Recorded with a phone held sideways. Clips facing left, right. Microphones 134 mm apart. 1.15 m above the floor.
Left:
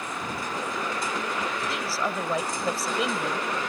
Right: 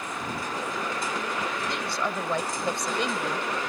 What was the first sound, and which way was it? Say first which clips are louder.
A woman speaking: left 1 dB; 5° left (ahead or behind).